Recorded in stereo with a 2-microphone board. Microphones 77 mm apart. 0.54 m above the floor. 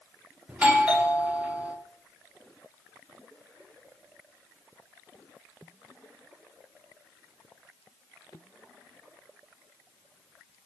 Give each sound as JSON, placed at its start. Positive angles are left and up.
{"t": 0.5, "sound": "a doorbell", "side_deg": -20, "distance_m": 1.1}